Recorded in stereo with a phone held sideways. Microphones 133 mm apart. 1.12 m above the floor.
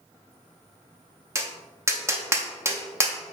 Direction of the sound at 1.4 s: 20° right (ahead or behind).